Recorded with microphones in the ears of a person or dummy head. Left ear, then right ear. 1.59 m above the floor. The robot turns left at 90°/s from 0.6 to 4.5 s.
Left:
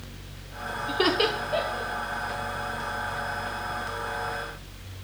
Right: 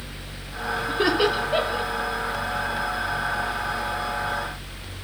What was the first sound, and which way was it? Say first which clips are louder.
Laughter: right 2 dB; 50° left (ahead or behind).